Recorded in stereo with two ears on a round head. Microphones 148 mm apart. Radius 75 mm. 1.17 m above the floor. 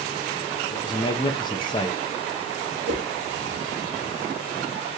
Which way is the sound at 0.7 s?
25° left (ahead or behind).